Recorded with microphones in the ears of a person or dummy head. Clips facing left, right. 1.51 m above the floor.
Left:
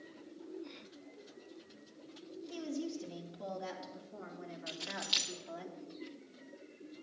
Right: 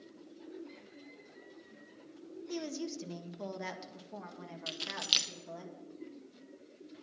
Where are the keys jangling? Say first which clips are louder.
Right 1 dB; 45° right (ahead or behind), 0.6 m.